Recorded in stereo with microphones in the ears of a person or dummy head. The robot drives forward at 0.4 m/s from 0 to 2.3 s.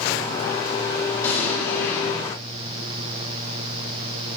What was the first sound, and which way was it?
An explosion, 15° left (ahead or behind).